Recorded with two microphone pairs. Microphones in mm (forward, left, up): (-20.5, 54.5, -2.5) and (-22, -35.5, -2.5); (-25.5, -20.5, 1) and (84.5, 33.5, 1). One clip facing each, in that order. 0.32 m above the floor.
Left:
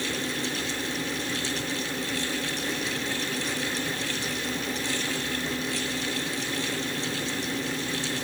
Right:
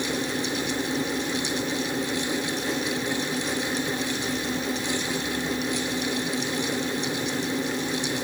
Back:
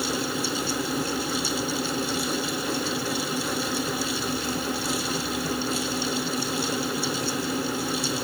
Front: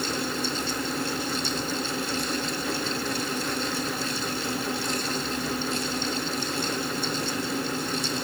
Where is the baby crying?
No baby crying in this recording.